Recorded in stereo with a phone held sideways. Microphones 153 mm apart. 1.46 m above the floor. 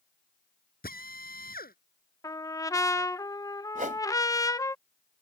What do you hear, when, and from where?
0.8 s a drill: 75° left (ahead or behind)
2.2 s a trumpet: 20° left (ahead or behind)
3.8 s a whoosh: 60° right (ahead or behind)